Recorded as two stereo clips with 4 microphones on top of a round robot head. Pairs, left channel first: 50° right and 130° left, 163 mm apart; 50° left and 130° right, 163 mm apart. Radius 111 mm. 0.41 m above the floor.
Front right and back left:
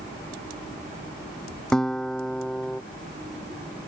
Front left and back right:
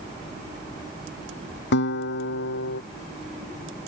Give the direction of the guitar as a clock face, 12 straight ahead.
11 o'clock.